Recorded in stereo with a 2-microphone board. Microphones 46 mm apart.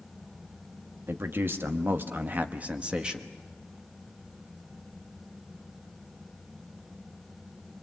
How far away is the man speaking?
About 1.6 m.